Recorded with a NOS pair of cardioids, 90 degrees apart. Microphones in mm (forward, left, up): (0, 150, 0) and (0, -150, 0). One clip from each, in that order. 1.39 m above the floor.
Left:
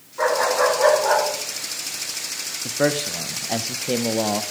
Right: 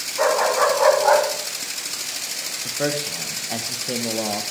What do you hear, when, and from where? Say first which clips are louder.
0.2 s a dog barking: right 1 dB; 15° right, 5 m; by 1.2 s 20° right, 4 m
2.6 s a man speaking: left 4 dB; 20° left, 0.8 m